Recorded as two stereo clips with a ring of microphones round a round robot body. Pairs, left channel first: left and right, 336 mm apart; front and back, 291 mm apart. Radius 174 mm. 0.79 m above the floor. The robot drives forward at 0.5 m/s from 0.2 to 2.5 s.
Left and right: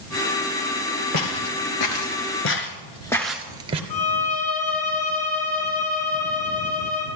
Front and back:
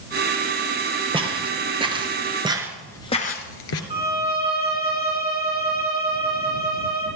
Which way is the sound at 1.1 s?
110° left.